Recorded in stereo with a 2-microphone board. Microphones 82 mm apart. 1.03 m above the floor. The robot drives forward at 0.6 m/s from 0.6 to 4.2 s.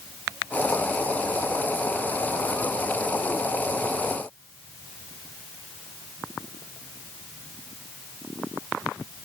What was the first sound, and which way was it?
Only background noise.